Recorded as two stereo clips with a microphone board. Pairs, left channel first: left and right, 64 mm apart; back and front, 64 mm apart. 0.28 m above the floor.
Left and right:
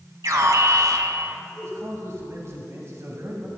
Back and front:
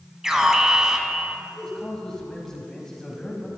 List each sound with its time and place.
0.2 s an alarm: 80° right, 1.3 m
1.5 s a man speaking: 105° right, 1.4 m